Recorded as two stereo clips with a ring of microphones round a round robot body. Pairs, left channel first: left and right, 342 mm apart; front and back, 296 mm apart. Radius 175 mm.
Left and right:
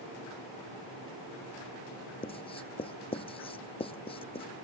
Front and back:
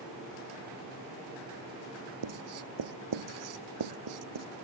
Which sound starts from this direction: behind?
Writing, at 2.2 s.